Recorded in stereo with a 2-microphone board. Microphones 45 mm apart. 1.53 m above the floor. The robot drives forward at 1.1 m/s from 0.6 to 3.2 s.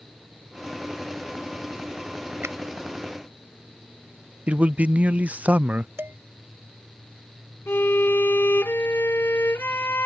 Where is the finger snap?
80° right.